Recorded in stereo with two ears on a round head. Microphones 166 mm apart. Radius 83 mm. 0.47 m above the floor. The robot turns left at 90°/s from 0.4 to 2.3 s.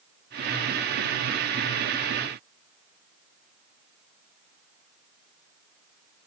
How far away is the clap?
No clap in this recording.